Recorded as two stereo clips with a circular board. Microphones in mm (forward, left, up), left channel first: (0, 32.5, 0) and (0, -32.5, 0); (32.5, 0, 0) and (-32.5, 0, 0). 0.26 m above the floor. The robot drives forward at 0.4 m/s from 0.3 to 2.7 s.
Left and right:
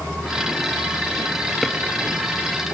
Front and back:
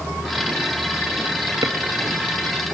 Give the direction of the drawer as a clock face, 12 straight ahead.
6 o'clock.